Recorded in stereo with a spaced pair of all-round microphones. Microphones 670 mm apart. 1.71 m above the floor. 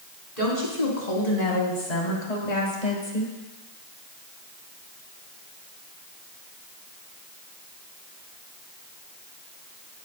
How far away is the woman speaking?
About 4 m.